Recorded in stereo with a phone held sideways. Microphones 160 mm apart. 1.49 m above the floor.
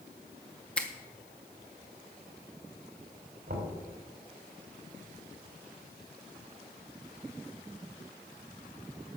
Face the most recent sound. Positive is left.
turn(degrees=-75)  # may be behind; listen again after turning